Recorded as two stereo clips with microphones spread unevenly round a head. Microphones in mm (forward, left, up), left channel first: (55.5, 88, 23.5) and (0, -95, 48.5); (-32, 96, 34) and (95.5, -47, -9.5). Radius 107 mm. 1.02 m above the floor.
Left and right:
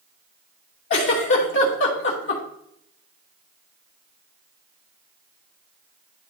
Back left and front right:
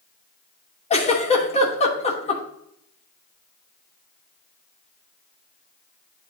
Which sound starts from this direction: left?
A giggle, at 0.9 s.